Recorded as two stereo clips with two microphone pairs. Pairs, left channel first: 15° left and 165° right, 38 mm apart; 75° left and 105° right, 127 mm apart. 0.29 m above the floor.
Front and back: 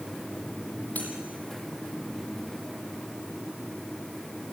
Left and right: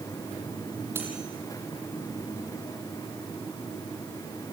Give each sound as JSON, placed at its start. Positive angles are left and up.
{"t": 0.9, "sound": "cutlery clinking", "azimuth_deg": -35, "distance_m": 6.5}